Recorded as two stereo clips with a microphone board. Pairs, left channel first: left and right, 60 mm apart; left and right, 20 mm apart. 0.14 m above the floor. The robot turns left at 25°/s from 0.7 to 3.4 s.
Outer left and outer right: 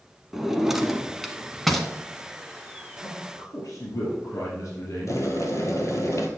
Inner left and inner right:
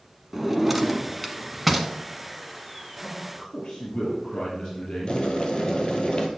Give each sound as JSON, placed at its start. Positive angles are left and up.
{"t": 0.3, "sound": "a drawer", "side_deg": -5, "distance_m": 0.8}
{"t": 3.0, "sound": "a man speaking", "side_deg": 65, "distance_m": 3.5}
{"t": 5.1, "sound": "boiling", "side_deg": 55, "distance_m": 1.4}